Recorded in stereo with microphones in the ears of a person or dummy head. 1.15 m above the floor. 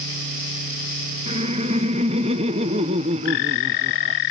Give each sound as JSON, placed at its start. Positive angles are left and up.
{"t": 1.3, "sound": "laughter", "side_deg": -30, "distance_m": 0.6}